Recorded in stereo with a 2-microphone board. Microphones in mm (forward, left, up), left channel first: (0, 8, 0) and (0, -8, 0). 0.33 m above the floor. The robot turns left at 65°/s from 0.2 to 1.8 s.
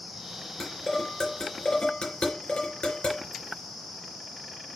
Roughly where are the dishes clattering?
Centre.